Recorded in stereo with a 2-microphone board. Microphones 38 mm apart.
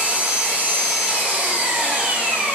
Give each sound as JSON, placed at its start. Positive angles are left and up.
{"t": 0.0, "sound": "an engine running", "side_deg": -30, "distance_m": 1.8}